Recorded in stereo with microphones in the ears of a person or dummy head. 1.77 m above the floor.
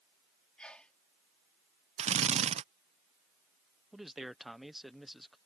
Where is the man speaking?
Centre (ahead or behind).